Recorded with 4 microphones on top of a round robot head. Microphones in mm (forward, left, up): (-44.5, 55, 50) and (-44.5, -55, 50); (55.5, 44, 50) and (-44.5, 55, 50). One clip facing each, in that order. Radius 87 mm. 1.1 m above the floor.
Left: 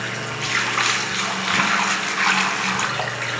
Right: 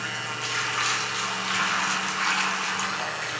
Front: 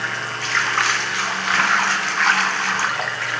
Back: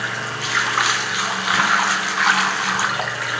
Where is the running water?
95° left, 0.8 m.